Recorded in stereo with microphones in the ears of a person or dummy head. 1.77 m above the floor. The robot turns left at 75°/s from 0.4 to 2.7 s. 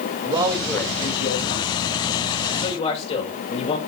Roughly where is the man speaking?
Behind right.